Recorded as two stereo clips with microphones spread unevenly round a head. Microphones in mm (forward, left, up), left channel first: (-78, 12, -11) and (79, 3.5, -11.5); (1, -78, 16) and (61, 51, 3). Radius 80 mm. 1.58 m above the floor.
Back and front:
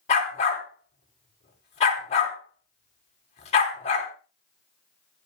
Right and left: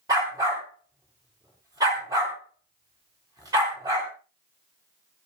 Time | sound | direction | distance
0.1 | a dog barking | 135° left | 3 m